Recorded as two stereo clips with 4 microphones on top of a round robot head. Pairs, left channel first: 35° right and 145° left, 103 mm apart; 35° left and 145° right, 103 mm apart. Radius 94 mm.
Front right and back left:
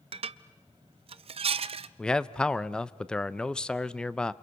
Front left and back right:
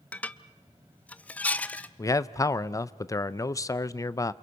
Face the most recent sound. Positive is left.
turn(degrees=40)